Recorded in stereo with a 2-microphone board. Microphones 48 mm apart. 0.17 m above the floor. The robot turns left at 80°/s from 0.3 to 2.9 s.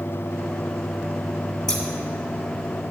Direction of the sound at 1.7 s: 10° left (ahead or behind).